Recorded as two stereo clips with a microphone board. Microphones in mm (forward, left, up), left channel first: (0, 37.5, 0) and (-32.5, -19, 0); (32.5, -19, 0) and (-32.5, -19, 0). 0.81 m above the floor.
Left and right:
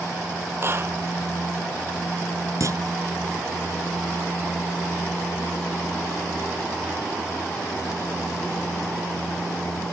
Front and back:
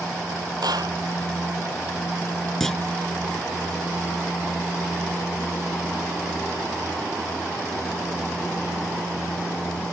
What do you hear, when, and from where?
0.6 s a clap: 170° right
2.6 s a clunk: 85° right